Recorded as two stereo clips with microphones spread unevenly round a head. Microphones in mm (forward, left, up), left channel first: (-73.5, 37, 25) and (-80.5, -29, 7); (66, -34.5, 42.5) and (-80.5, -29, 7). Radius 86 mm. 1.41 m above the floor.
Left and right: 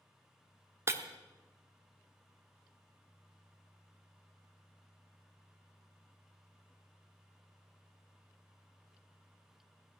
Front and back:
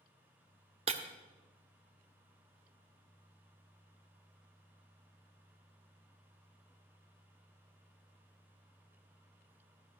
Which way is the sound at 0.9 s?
140° right.